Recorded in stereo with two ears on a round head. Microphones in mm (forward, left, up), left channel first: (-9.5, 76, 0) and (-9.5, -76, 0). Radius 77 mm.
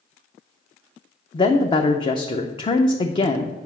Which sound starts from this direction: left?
A woman speaking, at 1.3 s.